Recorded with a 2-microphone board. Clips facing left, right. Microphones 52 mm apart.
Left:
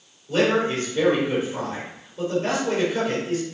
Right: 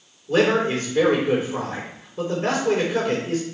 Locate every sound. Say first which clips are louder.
0.3 s a man speaking: right 2 dB; 50° right (ahead or behind), 4 m